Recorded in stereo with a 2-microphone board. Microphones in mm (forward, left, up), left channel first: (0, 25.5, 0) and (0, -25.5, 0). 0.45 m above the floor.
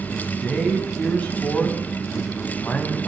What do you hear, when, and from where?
0.1 s a man speaking: 30° left (ahead or behind), 4 m